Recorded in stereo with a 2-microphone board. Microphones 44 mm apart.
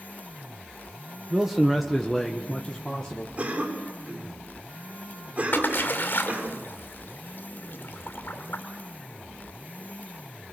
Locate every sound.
1.3 s a man speaking: 10° right (ahead or behind), 1.1 m; by 3.3 s 20° left (ahead or behind), 1.8 m
3.4 s a cough: 35° right (ahead or behind), 4.5 m
5.5 s a splash: 55° left (ahead or behind), 2 m